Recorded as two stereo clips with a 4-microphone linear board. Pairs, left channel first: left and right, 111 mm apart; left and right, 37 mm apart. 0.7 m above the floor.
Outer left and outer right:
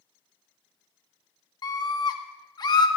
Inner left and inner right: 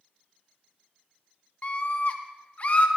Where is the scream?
40° left (ahead or behind), 0.7 m.